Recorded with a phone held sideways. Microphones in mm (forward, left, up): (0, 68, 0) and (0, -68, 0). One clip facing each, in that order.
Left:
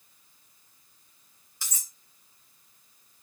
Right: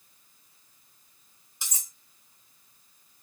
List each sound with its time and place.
1.6 s cutlery clinking: 20° right (ahead or behind), 1.1 m